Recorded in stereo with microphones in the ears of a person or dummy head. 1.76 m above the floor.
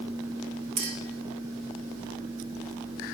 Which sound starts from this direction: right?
A clink, at 0.8 s.